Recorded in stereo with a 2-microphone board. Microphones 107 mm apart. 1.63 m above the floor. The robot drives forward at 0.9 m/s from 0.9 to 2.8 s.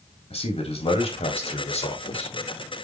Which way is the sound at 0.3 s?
60° left (ahead or behind).